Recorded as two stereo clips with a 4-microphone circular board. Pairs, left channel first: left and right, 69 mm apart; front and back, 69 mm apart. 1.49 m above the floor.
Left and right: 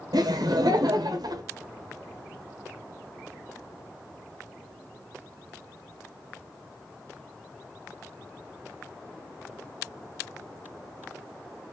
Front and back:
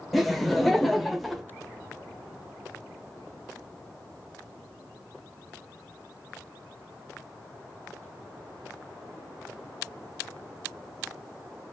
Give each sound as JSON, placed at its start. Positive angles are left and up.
{"t": 0.1, "sound": "laughter", "azimuth_deg": -90, "distance_m": 0.8}